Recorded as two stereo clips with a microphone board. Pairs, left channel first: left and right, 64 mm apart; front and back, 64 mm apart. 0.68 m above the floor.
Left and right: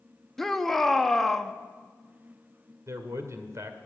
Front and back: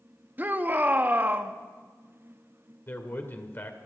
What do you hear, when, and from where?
0.4 s a shout: 170° left, 0.9 m
2.9 s a man speaking: 55° right, 2 m